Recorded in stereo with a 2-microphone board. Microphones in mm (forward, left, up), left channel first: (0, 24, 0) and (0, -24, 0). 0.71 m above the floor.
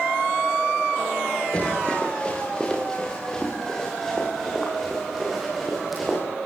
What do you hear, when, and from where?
1.5 s running footsteps: 25° left (ahead or behind), 9 m; by 6.2 s centre (ahead or behind), 12 m